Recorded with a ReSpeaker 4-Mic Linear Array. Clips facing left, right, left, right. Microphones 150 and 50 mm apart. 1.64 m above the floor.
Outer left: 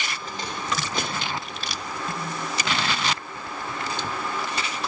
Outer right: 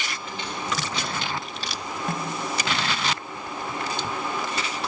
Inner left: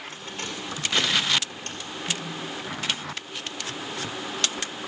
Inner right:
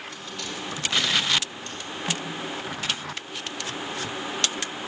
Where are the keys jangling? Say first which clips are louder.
Even, inner left 1 dB; 35° left (ahead or behind), 4 m; by 1.8 s 65° left (ahead or behind), 3 m.